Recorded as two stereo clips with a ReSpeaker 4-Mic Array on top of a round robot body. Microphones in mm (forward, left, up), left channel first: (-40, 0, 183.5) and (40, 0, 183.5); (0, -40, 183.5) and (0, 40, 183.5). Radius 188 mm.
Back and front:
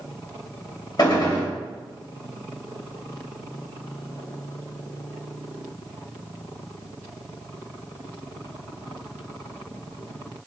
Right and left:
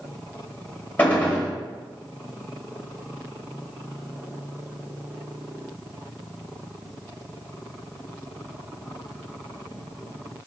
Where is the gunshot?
160° right, 2.0 m.